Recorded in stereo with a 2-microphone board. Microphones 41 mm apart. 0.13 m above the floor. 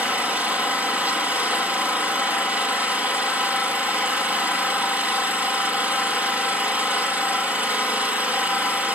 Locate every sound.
0.0 s an engine running: 40° right (ahead or behind), 2 m